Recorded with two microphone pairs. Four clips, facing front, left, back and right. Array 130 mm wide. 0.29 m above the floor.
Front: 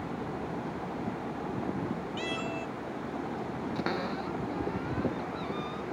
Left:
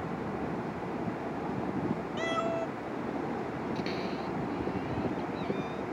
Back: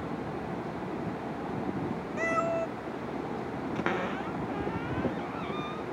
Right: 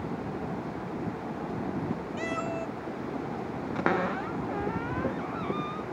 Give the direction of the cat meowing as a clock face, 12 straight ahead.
6 o'clock.